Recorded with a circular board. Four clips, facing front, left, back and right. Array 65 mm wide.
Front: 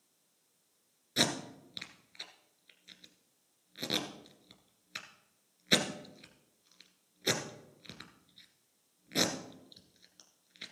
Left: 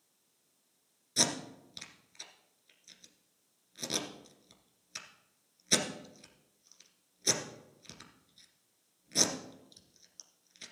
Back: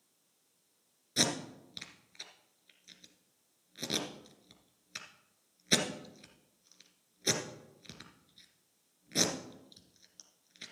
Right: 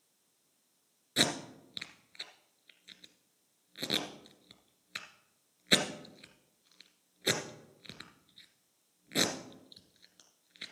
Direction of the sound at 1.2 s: 70° right.